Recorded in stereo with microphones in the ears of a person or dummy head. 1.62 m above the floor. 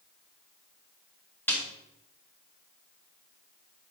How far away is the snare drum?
About 2 m.